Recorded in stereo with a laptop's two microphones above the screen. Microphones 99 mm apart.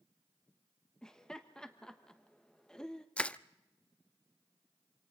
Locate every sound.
1.0 s laughter: 5° left (ahead or behind), 1.1 m
3.2 s crushing: 10° left (ahead or behind), 0.5 m